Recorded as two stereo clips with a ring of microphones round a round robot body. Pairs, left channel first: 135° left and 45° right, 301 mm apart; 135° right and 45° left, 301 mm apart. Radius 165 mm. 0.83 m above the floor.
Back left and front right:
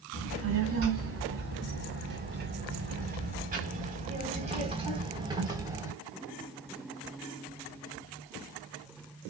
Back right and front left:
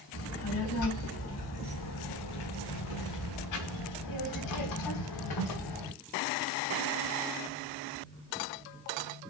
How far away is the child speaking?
About 5.5 m.